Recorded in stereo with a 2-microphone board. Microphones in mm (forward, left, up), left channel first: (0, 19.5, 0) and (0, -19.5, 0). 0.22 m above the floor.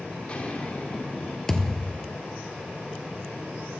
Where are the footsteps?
30° left (ahead or behind), 4.5 m; by 1.4 s 40° left (ahead or behind), 5 m.